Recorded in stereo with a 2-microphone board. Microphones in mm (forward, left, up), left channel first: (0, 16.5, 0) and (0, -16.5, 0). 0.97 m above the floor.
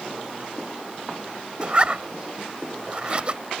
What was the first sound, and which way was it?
A zipper, 35° right (ahead or behind).